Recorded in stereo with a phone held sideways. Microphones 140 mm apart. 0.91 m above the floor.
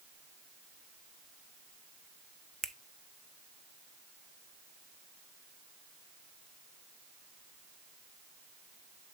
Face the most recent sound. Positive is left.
turn(degrees=5)  # may be behind; listen again after turning